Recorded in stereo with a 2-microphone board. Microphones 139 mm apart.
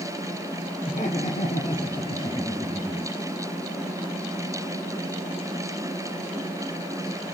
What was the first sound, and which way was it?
Laughter, 60° left (ahead or behind).